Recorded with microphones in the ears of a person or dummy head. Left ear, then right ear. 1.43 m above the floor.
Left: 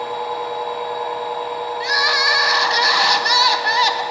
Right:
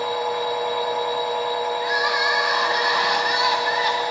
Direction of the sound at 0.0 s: 75° right (ahead or behind).